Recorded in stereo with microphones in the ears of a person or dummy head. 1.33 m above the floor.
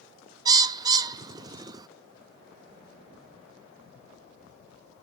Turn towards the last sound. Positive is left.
turn(degrees=-25)  # may be behind; listen again after turning